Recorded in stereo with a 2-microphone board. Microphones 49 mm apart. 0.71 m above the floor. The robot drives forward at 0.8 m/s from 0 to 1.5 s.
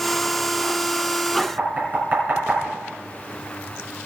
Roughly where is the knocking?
Right.